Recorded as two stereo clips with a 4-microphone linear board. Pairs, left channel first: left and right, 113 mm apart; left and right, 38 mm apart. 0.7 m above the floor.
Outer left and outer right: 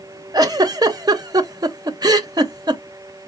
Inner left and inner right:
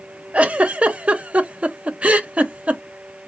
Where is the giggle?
35° right (ahead or behind), 0.6 m.